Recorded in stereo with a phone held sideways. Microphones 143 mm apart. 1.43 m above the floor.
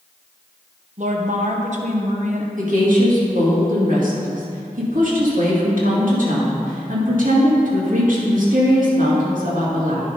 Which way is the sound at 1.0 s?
60° right (ahead or behind).